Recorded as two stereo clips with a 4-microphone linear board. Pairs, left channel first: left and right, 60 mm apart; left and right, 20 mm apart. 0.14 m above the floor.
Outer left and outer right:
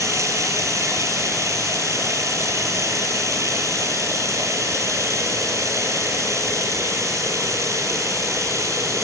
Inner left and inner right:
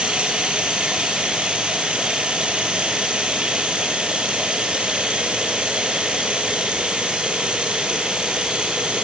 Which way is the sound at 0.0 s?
65° right (ahead or behind).